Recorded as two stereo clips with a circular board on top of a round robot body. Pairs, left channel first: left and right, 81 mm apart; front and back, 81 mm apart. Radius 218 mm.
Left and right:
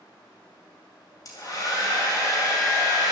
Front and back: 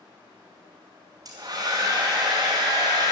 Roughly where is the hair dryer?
Behind left.